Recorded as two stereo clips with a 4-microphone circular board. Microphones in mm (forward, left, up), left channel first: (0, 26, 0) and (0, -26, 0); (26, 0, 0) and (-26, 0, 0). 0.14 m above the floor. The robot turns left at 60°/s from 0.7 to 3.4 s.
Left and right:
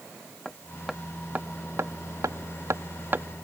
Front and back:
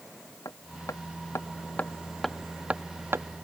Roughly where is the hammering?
Ahead.